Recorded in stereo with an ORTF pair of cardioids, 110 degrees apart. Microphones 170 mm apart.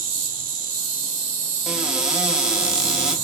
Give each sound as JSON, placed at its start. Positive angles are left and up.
{"t": 0.0, "sound": "an insect", "azimuth_deg": -60, "distance_m": 0.8}
{"t": 1.7, "sound": "a cupboard door", "azimuth_deg": -5, "distance_m": 0.5}